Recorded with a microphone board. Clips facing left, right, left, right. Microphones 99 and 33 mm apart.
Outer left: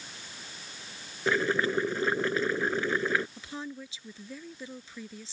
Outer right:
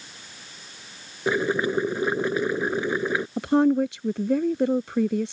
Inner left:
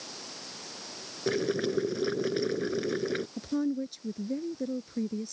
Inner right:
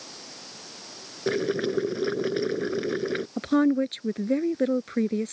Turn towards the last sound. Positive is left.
turn(degrees=-60)  # may be behind; listen again after turning